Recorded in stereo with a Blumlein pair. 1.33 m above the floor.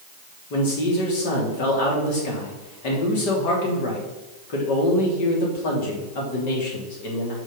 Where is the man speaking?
45° left, 3 m.